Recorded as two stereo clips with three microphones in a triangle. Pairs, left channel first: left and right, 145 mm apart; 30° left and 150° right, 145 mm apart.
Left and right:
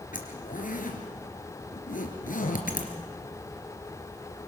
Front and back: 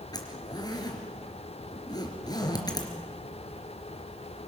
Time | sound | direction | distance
0.1 | a zipper | 90° left | 3 m